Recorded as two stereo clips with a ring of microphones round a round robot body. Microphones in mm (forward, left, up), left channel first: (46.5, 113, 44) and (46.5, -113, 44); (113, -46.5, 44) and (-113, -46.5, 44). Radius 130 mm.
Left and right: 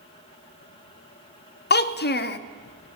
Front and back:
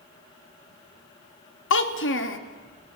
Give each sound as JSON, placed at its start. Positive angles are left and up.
{"t": 1.7, "sound": "a child speaking", "azimuth_deg": 40, "distance_m": 0.6}